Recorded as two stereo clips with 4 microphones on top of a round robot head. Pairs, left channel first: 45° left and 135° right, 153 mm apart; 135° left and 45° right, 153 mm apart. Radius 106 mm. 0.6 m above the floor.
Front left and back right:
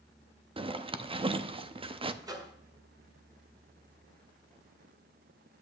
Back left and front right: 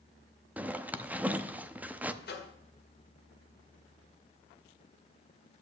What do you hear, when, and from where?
0.6 s a zipper: 115° right, 0.8 m
2.2 s a microwave: 155° left, 1.8 m